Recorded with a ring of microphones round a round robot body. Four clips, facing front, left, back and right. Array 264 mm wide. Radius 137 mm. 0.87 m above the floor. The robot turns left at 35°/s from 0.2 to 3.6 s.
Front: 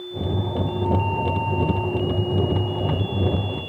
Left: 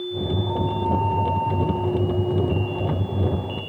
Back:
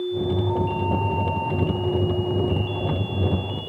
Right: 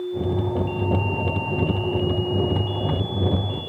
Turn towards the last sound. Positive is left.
No sound to turn to.